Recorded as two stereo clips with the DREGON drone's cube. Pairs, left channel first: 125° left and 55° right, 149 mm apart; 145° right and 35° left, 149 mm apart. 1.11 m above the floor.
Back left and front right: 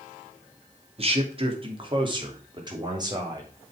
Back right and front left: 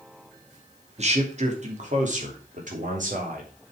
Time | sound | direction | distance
1.0 | a man speaking | 10° right | 2.5 m